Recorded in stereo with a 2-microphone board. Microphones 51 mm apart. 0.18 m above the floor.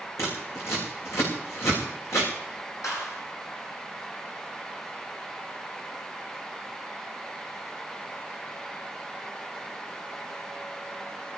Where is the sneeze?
I don't hear a sneeze.